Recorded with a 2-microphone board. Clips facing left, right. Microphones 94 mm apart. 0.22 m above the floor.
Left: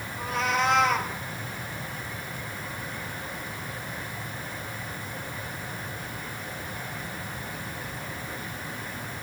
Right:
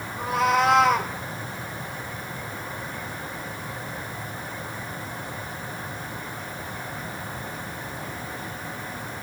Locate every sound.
0.2 s a cat meowing: 65° right (ahead or behind), 3.5 m